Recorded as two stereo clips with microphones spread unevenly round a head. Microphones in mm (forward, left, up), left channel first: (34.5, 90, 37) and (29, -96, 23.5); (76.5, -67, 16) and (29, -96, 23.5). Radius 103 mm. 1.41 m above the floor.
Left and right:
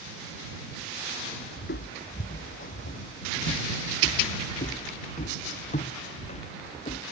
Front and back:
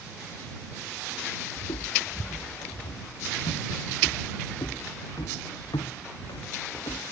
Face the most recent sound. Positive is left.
turn(degrees=30)